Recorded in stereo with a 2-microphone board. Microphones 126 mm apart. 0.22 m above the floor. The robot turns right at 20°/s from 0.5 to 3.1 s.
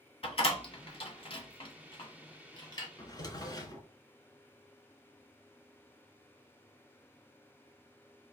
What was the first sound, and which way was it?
A door slam, 50° left (ahead or behind).